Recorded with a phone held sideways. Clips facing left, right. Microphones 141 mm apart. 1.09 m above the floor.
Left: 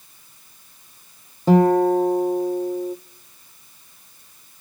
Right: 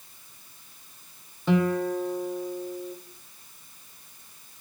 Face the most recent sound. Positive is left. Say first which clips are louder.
# left 9 dB
turn(degrees=40)  # may be behind; listen again after turning